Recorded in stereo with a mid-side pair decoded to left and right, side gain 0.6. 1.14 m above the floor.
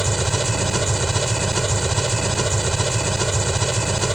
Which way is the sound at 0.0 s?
10° right.